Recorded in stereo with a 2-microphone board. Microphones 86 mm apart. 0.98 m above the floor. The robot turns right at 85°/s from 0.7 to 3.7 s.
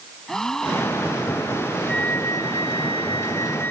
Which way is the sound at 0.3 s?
5° left.